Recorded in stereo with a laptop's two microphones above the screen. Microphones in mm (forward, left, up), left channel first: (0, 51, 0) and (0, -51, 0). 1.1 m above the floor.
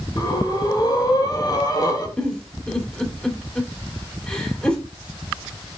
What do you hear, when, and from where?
0.2 s breathing: 40° left (ahead or behind), 1.9 m
2.2 s a giggle: 10° left (ahead or behind), 2.5 m